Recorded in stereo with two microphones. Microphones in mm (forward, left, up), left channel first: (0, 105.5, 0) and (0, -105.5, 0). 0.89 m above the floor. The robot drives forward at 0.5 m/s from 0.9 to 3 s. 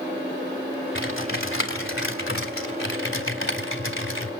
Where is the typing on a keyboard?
70° left (ahead or behind), 3.5 m; by 4.3 s 75° left (ahead or behind), 3.5 m.